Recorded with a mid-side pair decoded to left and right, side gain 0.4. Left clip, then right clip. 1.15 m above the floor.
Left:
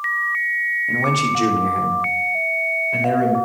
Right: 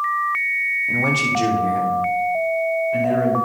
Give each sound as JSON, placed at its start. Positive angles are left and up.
{"t": 0.9, "sound": "a man speaking", "azimuth_deg": 15, "distance_m": 2.5}